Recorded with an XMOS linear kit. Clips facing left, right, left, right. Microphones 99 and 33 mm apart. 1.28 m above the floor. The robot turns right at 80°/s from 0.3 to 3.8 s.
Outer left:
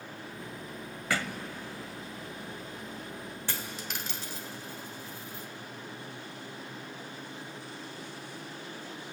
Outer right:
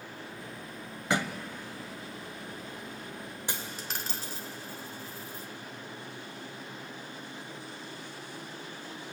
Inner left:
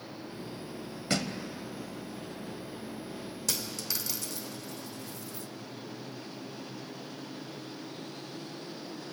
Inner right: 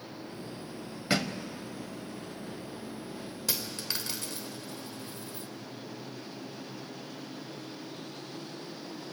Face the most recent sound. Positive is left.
turn(degrees=-40)  # may be behind; listen again after turning